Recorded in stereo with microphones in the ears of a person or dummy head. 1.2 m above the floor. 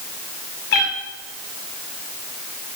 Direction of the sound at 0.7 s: 55° left (ahead or behind).